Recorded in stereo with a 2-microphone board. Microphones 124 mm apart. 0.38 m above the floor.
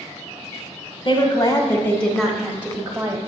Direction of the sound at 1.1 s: 40° left (ahead or behind).